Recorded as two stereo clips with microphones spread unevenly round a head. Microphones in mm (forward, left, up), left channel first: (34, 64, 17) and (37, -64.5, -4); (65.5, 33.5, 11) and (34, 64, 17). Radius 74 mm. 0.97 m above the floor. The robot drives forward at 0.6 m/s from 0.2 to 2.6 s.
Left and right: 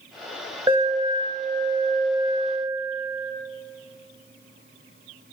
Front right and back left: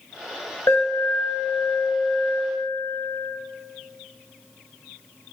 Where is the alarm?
30° right, 4 m; by 3.3 s 40° right, 3 m.